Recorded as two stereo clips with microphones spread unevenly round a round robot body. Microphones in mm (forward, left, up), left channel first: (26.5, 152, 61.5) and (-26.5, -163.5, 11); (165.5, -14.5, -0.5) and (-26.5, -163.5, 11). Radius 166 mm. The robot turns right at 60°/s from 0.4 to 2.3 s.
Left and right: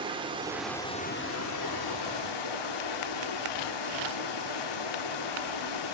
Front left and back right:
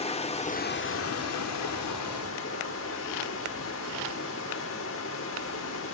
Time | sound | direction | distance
0.0 | running water | 25° right | 1.4 m